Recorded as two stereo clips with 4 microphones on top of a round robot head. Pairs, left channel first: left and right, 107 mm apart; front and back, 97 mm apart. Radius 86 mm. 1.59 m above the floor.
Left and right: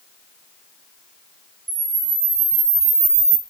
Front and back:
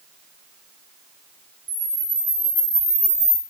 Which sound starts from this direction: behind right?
A camera shutter, at 1.7 s.